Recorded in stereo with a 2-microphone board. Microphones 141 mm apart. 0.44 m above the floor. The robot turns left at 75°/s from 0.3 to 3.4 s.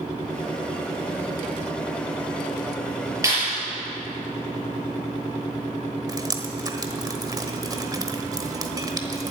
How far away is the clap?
About 6.5 m.